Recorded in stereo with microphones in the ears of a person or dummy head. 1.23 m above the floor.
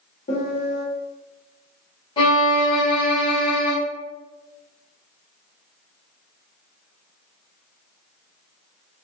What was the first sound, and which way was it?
A piano, 40° left (ahead or behind).